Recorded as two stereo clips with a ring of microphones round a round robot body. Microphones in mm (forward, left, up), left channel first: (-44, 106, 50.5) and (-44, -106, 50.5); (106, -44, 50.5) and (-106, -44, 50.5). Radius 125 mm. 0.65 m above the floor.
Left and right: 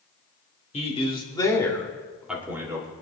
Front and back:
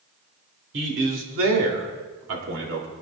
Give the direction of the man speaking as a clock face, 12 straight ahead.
7 o'clock.